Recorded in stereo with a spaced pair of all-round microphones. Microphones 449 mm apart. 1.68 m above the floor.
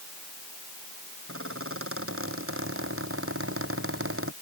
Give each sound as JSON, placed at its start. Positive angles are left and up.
{"t": 1.3, "sound": "a squeak", "side_deg": -25}